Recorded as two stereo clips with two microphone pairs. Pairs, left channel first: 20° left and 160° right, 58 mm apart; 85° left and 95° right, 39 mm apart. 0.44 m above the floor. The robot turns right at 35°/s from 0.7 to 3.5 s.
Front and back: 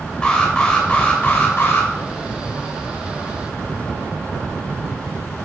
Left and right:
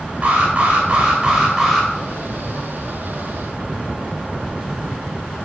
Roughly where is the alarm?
Ahead right.